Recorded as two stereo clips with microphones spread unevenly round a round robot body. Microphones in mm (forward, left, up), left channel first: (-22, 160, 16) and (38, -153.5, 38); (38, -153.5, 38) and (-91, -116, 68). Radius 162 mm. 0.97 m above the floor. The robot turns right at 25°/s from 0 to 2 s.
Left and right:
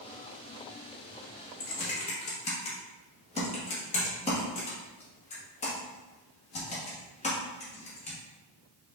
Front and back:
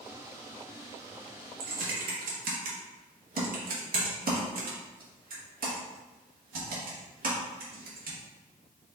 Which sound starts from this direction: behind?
Typing on a keyboard, at 1.6 s.